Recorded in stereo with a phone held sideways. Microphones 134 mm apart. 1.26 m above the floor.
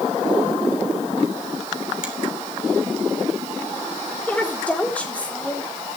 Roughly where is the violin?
No violin in this recording.